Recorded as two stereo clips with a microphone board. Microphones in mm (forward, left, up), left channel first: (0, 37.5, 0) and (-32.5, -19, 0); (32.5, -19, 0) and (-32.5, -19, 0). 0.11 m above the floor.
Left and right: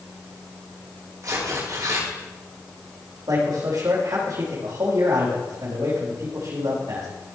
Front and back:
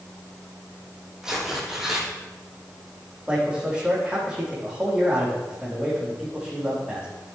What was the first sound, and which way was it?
Tearing paper, 100° right.